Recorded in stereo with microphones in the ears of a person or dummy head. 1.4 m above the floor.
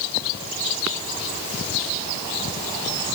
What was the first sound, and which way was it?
Only background noise.